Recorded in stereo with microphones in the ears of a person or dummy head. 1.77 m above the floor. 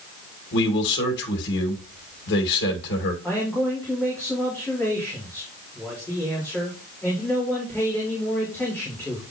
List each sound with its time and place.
0.5 s a man speaking: 60° left (ahead or behind), 1.7 m
3.2 s a man speaking: 10° left (ahead or behind), 3.5 m